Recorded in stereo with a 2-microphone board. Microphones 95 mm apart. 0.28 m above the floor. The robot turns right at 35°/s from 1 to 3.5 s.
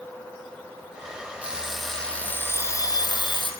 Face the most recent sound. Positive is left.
turn(degrees=60)